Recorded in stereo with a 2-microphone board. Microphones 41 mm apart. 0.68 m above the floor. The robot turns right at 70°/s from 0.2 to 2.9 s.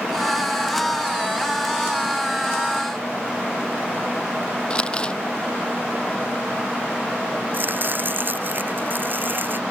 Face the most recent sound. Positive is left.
turn(degrees=-45)  # may be behind; listen again after turning